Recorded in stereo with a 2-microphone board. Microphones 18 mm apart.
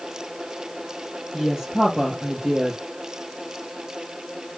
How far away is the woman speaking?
About 3.5 m.